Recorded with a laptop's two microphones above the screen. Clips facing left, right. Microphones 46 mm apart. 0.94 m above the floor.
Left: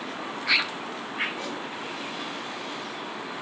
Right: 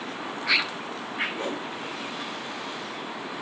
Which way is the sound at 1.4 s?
30° right (ahead or behind).